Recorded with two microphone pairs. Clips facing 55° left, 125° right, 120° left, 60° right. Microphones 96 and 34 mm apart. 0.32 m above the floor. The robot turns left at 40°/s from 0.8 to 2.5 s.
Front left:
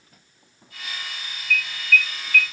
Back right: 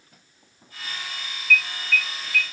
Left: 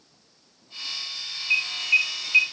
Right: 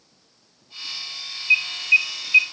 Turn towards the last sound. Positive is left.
turn(degrees=-55)